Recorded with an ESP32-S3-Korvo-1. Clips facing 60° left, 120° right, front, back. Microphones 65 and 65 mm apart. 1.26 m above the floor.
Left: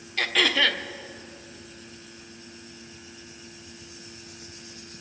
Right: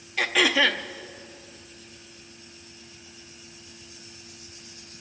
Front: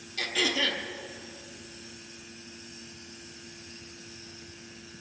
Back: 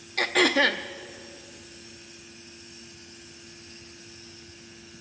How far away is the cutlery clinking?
No cutlery clinking in this recording.